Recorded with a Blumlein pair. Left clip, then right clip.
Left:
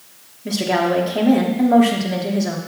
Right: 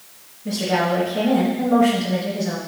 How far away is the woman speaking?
About 1.7 m.